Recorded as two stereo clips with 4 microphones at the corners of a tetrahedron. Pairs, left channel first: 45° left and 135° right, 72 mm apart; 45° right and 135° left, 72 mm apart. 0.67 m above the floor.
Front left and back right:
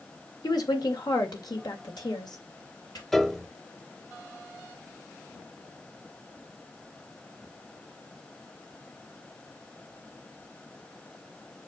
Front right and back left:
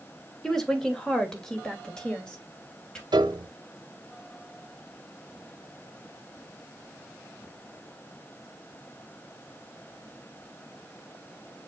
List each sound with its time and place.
0.4 s a woman speaking: 40° left, 1.8 m; by 3.0 s 35° left, 3.5 m
3.1 s a piano: 130° left, 0.7 m